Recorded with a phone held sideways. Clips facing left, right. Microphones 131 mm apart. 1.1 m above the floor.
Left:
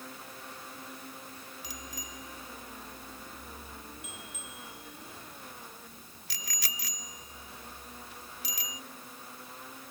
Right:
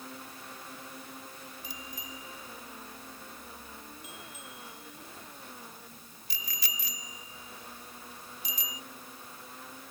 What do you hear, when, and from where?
1.6 s a bicycle bell: 80° left